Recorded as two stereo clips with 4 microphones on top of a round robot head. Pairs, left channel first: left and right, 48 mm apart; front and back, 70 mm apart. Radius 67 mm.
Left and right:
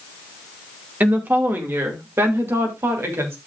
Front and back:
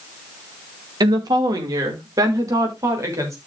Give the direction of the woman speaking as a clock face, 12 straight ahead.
5 o'clock.